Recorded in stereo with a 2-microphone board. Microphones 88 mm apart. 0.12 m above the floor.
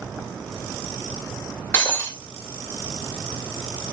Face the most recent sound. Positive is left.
turn(degrees=30)  # may be behind; listen again after turning